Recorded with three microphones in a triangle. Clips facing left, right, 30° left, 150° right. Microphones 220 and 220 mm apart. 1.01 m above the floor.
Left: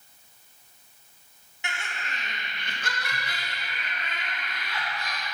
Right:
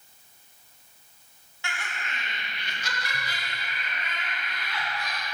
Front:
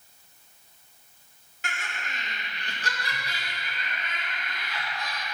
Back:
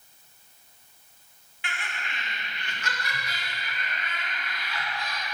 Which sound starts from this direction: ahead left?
Laughter, at 1.6 s.